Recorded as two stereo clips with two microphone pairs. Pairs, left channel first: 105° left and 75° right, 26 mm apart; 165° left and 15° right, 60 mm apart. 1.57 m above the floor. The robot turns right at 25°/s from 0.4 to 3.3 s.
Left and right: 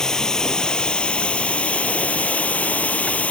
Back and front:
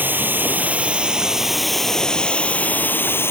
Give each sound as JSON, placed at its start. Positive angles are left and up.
{"t": 0.0, "sound": "running water", "azimuth_deg": 45}